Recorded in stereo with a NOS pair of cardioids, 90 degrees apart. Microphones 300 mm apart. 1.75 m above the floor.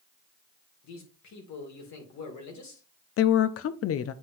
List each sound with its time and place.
0.8 s a man speaking: 65° left, 2 m
3.2 s a woman speaking: 50° left, 0.6 m